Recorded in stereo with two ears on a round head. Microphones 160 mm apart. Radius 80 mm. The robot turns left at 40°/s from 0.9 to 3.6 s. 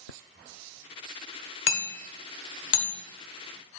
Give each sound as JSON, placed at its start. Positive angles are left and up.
{"t": 1.7, "sound": "hammering", "side_deg": 70, "distance_m": 1.0}